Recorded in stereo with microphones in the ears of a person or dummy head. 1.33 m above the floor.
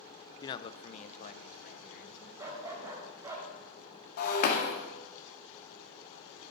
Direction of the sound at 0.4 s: 25° left (ahead or behind).